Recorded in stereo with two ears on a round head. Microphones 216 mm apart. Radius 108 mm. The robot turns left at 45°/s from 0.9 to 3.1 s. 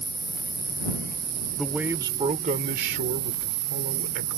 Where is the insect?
5° right; by 4.4 s 105° right.